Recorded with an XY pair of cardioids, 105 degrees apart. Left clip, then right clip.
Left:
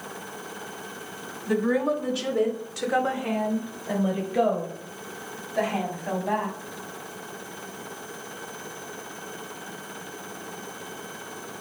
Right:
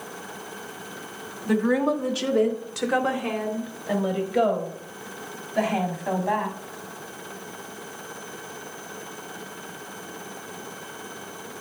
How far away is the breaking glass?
No breaking glass in this recording.